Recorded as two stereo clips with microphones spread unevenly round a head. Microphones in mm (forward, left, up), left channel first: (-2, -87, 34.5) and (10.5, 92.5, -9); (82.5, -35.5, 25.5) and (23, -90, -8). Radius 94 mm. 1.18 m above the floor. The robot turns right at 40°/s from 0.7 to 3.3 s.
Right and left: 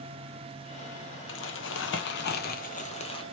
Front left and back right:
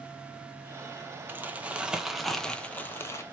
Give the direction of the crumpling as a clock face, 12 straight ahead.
3 o'clock.